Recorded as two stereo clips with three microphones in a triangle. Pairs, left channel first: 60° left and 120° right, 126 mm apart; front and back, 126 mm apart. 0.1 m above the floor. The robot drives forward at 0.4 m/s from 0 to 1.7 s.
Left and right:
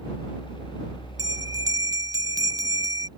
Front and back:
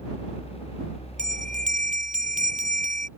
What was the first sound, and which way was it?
A bell, straight behind.